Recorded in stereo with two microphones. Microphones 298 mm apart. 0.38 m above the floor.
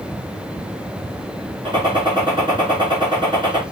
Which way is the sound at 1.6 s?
15° right (ahead or behind).